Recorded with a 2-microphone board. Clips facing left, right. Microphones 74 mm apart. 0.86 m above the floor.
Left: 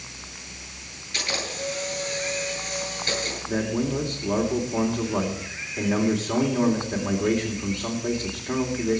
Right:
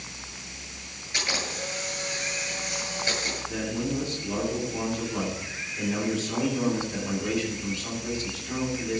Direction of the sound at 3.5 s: 40° left (ahead or behind).